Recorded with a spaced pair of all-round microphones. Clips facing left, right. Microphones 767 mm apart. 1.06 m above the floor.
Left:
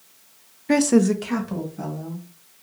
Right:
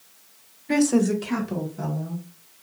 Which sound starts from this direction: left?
A woman speaking, at 0.7 s.